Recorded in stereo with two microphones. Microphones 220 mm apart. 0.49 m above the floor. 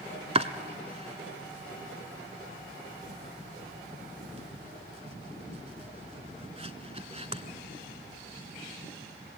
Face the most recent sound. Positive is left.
turn(degrees=-30)  # may be behind; listen again after turning